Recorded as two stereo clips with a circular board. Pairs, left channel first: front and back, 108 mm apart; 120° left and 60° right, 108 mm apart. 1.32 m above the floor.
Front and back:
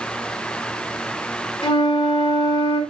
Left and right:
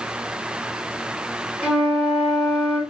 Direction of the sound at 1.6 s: 20° left.